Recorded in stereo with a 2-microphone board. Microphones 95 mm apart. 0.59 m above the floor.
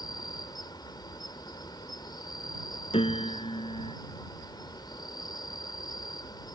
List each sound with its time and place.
0.0 s an insect: 50° left (ahead or behind)
2.9 s a piano: 80° left